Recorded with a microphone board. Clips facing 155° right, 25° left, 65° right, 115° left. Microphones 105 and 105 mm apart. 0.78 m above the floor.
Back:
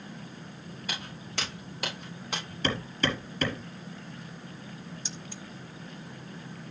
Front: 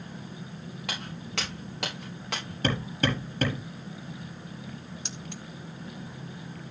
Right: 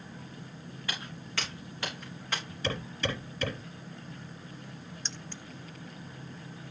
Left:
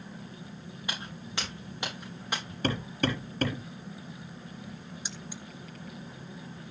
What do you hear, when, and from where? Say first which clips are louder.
0.9 s footsteps: front 3 dB, left 1 dB; 40° left, 7.5 m; by 2.5 s 35° left, 8 m
2.6 s hammering: front 2 dB, left 4 dB; 70° left, 5 m
5.0 s keys jangling: front 2 dB, left 2 dB; 30° left, 0.8 m